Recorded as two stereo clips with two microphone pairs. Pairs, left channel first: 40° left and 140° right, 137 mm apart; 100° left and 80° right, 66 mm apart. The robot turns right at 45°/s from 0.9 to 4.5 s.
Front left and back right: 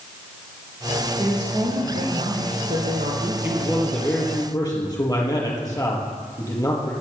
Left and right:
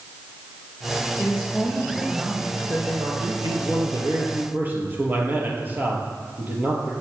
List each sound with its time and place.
1.2 s a woman speaking: 170° left, 6.5 m; by 3.3 s 95° right, 6.5 m
3.4 s a man speaking: 65° right, 4.5 m; by 6.9 s 20° right, 4.5 m